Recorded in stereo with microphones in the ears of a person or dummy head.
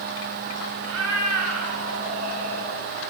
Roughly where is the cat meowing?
Right.